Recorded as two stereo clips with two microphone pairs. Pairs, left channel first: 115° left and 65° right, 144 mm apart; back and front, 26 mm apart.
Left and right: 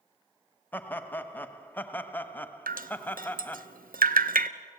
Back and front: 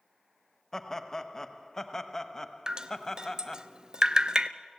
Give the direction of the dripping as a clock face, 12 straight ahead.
2 o'clock.